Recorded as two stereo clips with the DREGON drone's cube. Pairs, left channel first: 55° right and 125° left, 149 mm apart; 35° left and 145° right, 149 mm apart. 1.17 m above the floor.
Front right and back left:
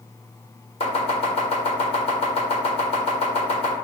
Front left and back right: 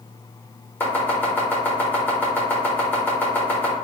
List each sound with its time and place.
0.8 s chopping: 35° right, 1.0 m